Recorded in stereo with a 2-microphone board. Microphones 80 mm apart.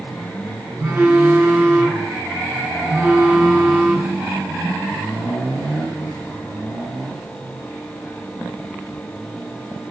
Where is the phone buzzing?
30° right (ahead or behind), 0.7 m.